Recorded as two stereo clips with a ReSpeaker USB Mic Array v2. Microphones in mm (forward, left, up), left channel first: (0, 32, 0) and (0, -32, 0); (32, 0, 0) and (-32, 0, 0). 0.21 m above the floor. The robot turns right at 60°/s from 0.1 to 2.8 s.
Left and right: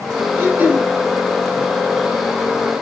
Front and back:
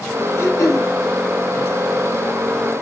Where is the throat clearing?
45° right, 1.8 m; by 0.9 s 15° right, 1.8 m.